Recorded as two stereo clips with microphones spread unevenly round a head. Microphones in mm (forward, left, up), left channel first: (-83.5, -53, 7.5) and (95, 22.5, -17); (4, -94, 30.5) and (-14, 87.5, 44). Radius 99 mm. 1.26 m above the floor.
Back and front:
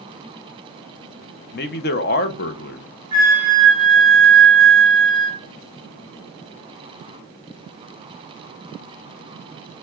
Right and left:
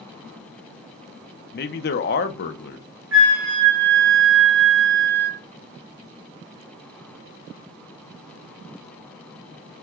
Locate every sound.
1.5 s a man speaking: 115° right, 0.8 m
3.1 s a flute: 90° left, 2 m